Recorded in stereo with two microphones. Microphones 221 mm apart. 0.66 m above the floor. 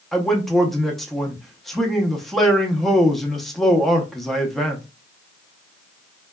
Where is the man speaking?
Centre (ahead or behind), 0.6 m.